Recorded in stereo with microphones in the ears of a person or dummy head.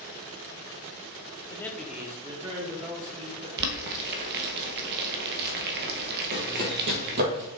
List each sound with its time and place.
1.5 s a man speaking: 20° left (ahead or behind), 0.9 m; by 3.5 s 35° right (ahead or behind), 2.5 m
3.6 s boiling: 55° right (ahead or behind), 0.9 m
6.3 s running footsteps: 55° right (ahead or behind), 2 m; by 7.5 s 50° right (ahead or behind), 3 m